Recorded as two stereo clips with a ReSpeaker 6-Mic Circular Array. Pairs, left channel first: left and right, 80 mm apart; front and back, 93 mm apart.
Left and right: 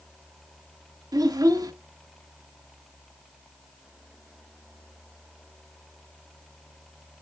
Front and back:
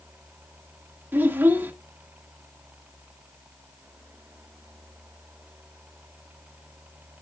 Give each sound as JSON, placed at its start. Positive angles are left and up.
{"t": 1.1, "sound": "a child speaking", "azimuth_deg": -115, "distance_m": 1.0}